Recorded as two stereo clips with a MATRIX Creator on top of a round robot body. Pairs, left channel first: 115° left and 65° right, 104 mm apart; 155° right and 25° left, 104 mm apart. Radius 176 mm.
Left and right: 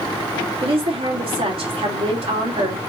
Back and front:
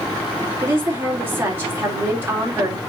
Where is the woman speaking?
45° right, 3 m.